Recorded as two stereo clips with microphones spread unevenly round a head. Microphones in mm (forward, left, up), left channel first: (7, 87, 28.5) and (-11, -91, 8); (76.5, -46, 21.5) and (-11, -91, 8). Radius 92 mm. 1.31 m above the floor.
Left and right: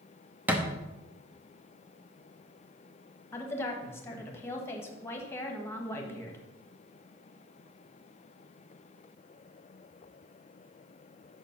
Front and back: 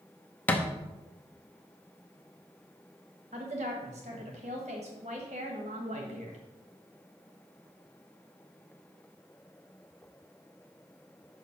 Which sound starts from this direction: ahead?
A thud, at 0.5 s.